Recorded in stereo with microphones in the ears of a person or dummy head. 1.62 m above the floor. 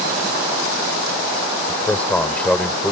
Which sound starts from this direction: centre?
A man speaking, at 1.7 s.